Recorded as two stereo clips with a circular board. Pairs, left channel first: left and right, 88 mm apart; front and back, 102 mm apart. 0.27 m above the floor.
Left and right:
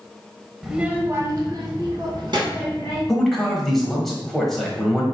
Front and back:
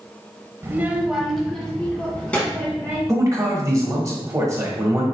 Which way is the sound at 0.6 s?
175° right.